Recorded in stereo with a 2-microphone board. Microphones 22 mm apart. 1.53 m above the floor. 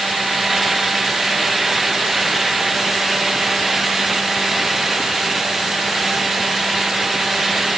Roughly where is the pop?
No pop in this recording.